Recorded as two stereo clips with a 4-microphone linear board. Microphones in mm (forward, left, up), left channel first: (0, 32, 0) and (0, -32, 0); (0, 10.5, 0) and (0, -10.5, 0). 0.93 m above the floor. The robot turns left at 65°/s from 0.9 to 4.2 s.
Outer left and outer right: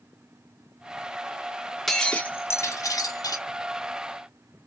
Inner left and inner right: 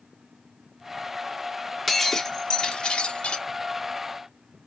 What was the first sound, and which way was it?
Breaking glass, 175° left.